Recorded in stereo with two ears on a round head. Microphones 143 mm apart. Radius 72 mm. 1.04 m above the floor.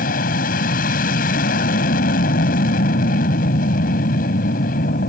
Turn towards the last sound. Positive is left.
turn(degrees=60)  # may be behind; listen again after turning